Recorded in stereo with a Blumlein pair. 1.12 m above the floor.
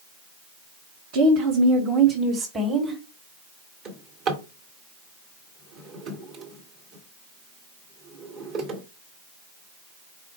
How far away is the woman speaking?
About 0.9 m.